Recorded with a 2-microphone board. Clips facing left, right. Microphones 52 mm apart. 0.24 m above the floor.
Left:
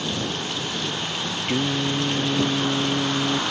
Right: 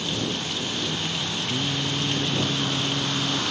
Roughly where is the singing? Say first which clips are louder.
Left 6 dB; left.